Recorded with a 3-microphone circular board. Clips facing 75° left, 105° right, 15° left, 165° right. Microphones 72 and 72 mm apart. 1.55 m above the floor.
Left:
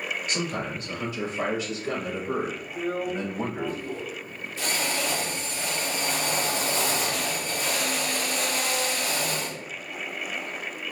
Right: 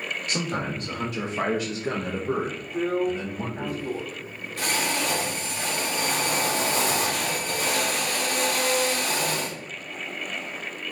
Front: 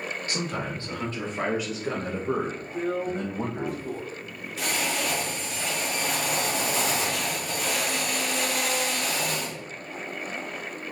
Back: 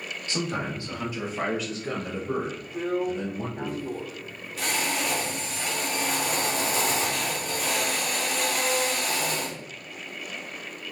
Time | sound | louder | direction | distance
0.3 | a man speaking | right 3 dB, back 3 dB | 100° right | 2.5 m
2.7 | a drill | right 5 dB, back 1 dB | 75° right | 2 m